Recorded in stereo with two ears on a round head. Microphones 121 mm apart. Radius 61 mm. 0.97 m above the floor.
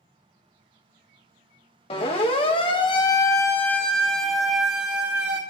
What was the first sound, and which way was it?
A siren, 45° left (ahead or behind).